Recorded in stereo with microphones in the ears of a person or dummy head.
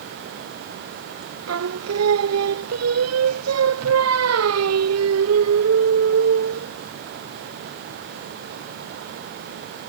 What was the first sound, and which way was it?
Singing, 80° right.